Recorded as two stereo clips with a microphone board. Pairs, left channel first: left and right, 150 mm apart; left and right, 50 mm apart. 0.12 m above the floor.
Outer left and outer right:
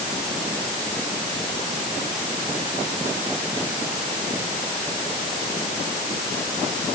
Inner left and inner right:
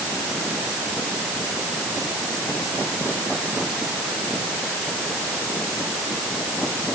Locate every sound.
Only background noise.